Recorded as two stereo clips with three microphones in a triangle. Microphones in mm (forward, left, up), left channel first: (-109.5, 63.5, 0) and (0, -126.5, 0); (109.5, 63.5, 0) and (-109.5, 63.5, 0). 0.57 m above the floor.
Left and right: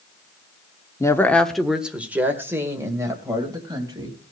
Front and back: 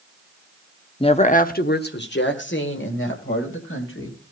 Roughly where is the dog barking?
I don't hear a dog barking.